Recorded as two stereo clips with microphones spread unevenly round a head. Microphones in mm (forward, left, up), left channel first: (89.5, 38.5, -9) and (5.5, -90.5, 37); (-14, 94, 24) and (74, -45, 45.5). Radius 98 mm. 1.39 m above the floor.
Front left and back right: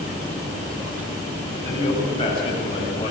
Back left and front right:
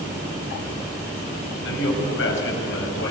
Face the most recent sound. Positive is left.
turn(degrees=125)